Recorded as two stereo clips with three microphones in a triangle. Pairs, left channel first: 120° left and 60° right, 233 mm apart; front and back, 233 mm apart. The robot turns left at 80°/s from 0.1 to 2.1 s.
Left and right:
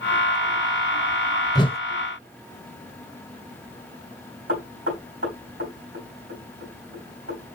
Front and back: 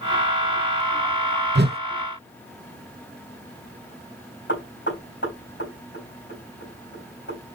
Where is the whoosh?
175° right, 0.5 m; by 1.8 s 165° left, 0.5 m.